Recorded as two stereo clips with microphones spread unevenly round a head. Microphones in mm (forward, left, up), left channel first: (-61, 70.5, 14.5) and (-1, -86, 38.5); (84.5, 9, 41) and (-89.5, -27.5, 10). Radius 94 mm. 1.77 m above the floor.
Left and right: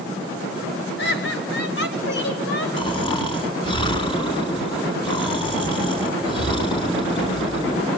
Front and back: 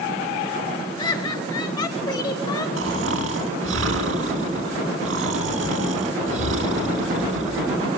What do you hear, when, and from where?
1.0 s laughter: 80° left, 2.5 m
2.8 s snoring: 175° left, 3 m